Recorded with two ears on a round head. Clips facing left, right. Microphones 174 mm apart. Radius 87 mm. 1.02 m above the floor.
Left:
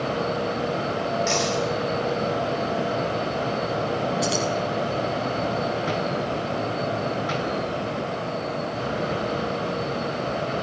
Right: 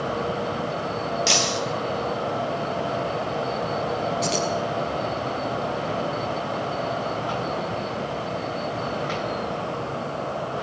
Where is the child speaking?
I don't hear a child speaking.